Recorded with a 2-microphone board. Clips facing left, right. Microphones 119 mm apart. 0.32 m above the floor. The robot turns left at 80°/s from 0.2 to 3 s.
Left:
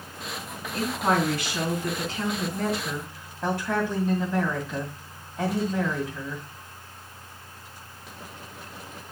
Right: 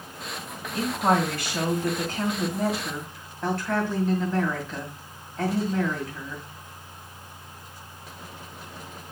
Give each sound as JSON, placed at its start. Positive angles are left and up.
{"t": 0.7, "sound": "a woman speaking", "azimuth_deg": 0, "distance_m": 2.0}